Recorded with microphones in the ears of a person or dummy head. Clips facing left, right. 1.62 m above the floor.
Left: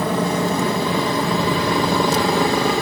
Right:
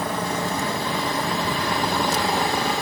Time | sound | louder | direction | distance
0.0 | a helicopter | left 6 dB | 55° left (ahead or behind) | ?